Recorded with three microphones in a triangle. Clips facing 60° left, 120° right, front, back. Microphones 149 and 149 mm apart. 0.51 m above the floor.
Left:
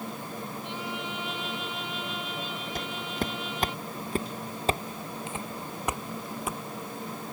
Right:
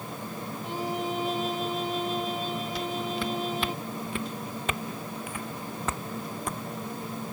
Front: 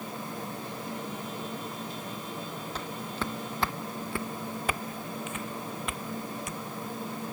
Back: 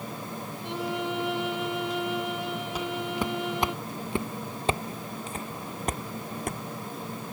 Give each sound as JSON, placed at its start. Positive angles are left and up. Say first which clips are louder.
{"t": 0.6, "sound": "a violin", "louder": "right 9 dB, back 6 dB", "azimuth_deg": -170}
{"t": 2.8, "sound": "footsteps", "louder": "even, back 6 dB", "azimuth_deg": 100}